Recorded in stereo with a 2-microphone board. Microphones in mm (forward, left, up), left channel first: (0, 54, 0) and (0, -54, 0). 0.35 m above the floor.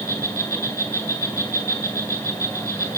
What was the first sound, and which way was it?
An insect, 20° left (ahead or behind).